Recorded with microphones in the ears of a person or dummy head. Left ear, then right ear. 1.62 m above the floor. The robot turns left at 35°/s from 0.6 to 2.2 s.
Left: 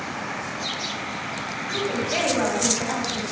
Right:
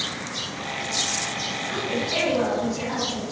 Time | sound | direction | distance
1.7 | a woman speaking | 20° left (ahead or behind) | 6 m